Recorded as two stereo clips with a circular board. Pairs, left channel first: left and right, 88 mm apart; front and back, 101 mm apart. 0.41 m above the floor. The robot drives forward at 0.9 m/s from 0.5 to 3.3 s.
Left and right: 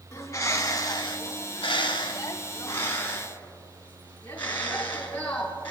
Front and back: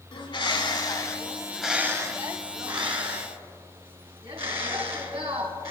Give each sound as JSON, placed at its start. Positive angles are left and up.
{"t": 0.1, "sound": "a bird", "azimuth_deg": 35, "distance_m": 1.2}